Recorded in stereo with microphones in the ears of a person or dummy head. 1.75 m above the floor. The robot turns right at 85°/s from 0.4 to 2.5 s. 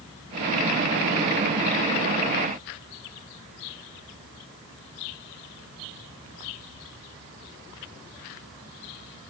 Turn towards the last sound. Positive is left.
No sound to turn to.